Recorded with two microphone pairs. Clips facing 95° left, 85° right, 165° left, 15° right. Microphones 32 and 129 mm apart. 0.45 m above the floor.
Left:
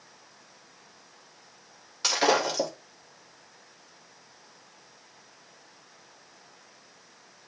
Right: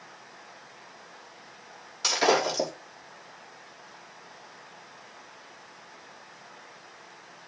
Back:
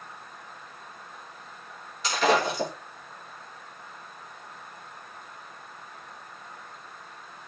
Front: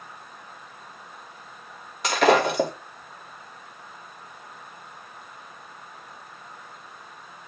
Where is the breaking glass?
15° left, 4.5 m.